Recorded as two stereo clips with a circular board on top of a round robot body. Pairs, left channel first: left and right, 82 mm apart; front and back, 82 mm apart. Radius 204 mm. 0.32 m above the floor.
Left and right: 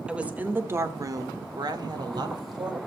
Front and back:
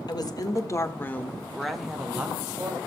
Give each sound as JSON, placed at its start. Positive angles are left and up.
{"t": 0.1, "sound": "a woman speaking", "azimuth_deg": -15, "distance_m": 2.5}